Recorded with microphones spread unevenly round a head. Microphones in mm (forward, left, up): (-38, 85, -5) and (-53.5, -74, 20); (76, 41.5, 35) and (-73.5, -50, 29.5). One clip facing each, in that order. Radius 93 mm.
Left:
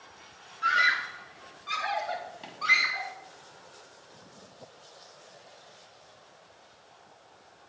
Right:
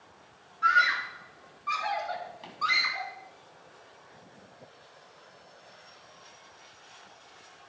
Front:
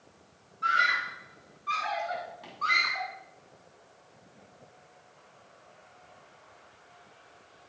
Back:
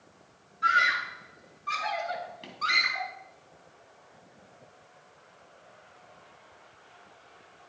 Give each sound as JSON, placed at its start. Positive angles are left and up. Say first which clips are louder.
{"t": 0.6, "sound": "a scream", "louder": "right 2 dB, back 2 dB", "azimuth_deg": 135, "distance_m": 2.5}